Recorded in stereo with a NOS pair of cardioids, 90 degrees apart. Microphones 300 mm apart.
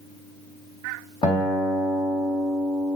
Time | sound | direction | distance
1.2 | a guitar | 15° left | 3.5 m